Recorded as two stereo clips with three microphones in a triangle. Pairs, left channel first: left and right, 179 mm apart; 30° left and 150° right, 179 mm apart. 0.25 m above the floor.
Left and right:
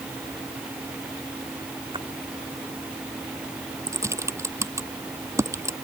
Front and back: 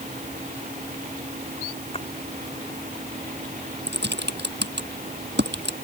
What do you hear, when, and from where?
1.9 s a splash: 25° right
3.9 s typing on a keyboard: 165° right